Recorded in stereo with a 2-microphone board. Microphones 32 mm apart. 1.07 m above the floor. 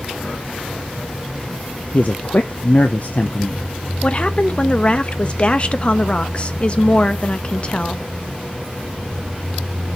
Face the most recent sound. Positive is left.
turn(degrees=35)  # may be behind; listen again after turning